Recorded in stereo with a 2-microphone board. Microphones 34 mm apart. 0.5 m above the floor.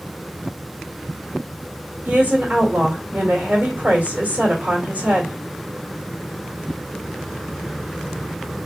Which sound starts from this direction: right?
A woman speaking, at 2.0 s.